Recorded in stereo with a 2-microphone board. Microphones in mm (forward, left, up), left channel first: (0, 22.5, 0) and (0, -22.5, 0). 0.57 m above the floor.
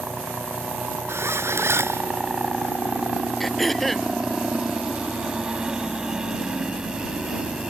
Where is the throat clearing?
5° left (ahead or behind).